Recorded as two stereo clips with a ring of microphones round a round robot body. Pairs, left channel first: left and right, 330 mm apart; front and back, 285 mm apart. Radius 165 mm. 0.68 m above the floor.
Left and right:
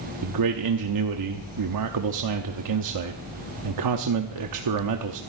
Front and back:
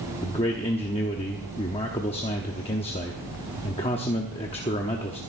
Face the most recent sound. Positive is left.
turn(degrees=-70)